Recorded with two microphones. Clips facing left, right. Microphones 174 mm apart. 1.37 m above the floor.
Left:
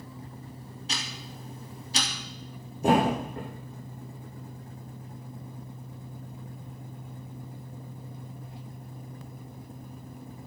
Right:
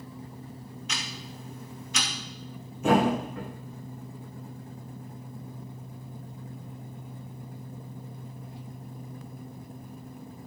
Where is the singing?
I don't hear singing.